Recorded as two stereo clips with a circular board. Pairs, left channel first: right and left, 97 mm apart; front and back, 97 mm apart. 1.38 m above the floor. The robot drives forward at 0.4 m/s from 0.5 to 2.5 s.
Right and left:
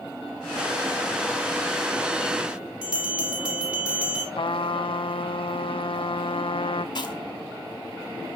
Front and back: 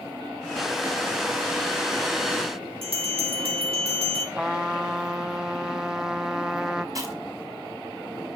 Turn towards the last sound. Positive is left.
turn(degrees=-130)